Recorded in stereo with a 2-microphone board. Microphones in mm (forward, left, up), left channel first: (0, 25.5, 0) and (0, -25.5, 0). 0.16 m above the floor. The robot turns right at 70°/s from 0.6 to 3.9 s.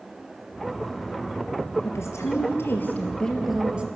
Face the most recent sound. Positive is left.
turn(degrees=-150)